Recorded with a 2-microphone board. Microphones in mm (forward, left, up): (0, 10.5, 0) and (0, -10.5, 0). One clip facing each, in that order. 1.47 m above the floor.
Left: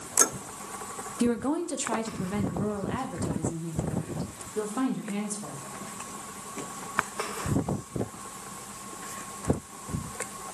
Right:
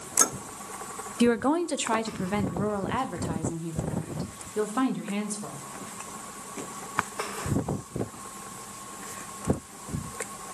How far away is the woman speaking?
About 0.5 m.